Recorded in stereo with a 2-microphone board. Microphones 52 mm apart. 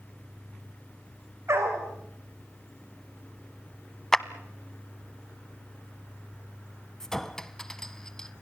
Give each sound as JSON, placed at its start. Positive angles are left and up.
{"t": 1.5, "sound": "a dog barking", "side_deg": -55, "distance_m": 5.5}
{"t": 4.1, "sound": "a clap", "side_deg": 10, "distance_m": 0.9}
{"t": 7.0, "sound": "a clink", "side_deg": 10, "distance_m": 1.0}